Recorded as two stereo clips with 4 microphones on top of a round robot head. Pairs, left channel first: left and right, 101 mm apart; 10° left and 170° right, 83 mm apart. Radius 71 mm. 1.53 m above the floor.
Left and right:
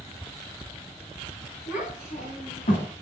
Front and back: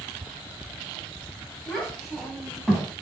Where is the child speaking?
100° left, 6 m.